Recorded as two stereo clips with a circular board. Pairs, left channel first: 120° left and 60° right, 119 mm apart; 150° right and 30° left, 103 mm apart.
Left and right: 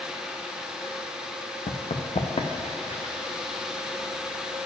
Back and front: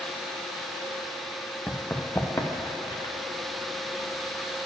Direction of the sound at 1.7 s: 135° left.